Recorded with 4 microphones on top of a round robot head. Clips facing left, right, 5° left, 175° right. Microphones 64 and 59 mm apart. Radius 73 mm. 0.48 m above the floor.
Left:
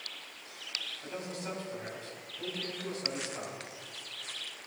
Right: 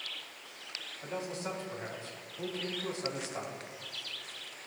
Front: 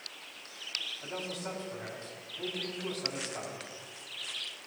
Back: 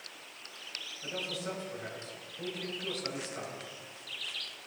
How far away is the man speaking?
About 4 m.